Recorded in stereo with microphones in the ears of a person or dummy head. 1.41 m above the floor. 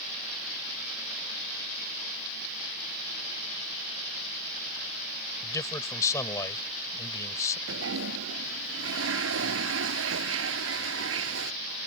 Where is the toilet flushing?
80° right.